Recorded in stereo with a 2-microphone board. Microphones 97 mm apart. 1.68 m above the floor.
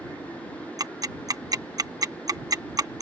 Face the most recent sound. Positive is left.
turn(degrees=-40)  # may be behind; listen again after turning